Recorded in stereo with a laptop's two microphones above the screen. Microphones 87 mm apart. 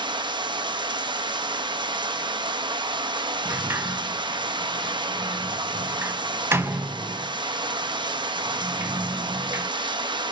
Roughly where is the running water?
Right.